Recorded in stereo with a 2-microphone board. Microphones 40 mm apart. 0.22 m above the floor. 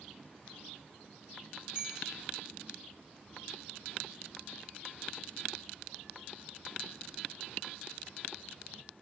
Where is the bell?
20° right (ahead or behind), 1.6 m.